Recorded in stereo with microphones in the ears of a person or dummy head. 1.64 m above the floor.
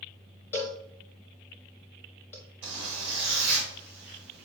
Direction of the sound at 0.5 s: 10° left (ahead or behind).